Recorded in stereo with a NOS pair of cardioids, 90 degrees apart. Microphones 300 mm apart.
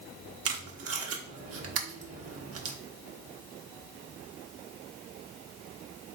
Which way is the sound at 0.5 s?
50° right.